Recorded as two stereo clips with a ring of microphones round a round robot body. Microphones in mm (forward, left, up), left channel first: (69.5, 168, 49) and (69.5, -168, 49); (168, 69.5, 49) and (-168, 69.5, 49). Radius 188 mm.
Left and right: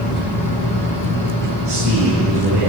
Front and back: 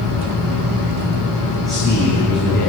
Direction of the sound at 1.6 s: 90° right.